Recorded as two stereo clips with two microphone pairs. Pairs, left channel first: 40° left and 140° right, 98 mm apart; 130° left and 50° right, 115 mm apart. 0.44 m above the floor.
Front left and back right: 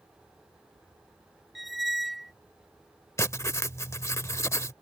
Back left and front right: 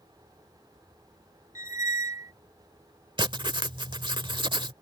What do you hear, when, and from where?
1.6 s a squeak: 50° right
3.2 s writing: 15° right